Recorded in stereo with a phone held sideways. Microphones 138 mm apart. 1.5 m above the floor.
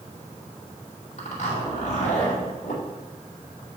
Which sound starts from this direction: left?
A zipper, at 1.2 s.